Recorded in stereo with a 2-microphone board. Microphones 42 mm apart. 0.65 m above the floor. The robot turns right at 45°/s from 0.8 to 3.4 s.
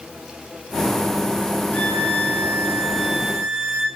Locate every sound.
1.7 s a violin: 130° left, 0.7 m; by 3.9 s 155° right, 0.7 m